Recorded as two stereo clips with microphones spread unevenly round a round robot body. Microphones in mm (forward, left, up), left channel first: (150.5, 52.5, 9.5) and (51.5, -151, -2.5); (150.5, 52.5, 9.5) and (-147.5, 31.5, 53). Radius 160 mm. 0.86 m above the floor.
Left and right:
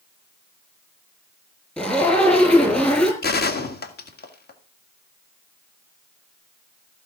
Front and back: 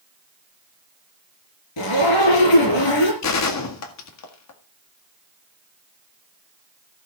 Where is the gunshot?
20° left, 1.9 m.